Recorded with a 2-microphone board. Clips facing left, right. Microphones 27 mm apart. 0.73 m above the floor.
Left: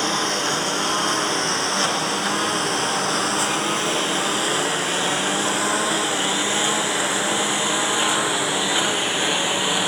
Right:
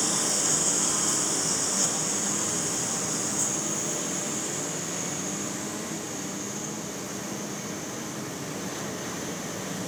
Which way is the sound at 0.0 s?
35° left (ahead or behind).